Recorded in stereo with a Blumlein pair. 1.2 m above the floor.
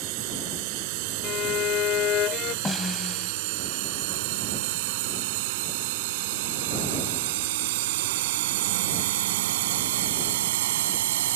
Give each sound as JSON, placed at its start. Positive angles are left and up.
{"t": 0.0, "sound": "a drone", "azimuth_deg": -45}
{"t": 1.2, "sound": "a violin", "azimuth_deg": 35}
{"t": 2.6, "sound": "a snare drum", "azimuth_deg": 10}